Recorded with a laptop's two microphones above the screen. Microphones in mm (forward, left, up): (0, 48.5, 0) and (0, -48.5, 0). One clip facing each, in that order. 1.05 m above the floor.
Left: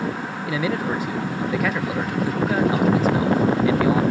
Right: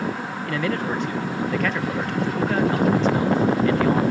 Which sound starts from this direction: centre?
A man speaking, at 0.5 s.